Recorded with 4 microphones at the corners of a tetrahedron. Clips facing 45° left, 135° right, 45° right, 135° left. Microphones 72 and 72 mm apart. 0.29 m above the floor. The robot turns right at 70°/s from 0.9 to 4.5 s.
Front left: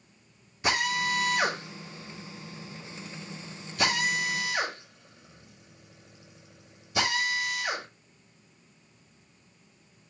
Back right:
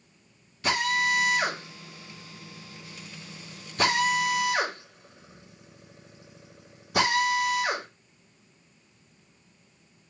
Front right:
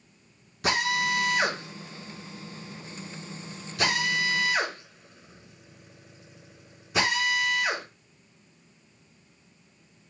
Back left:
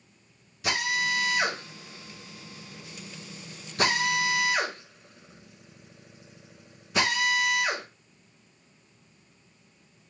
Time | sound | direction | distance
0.6 | a drill | 25° right | 2.5 m